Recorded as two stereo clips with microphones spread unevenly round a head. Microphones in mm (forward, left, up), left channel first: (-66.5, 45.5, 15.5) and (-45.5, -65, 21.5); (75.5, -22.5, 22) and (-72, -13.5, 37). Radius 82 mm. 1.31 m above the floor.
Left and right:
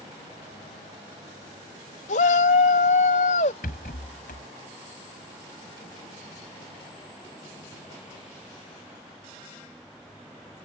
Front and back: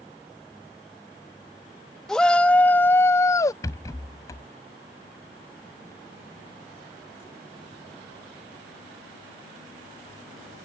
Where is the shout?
85° left; by 3.5 s 70° left.